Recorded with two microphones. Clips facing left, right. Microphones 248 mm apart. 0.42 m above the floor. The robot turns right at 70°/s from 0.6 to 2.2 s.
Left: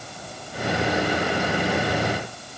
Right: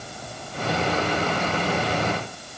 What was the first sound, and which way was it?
Only background noise.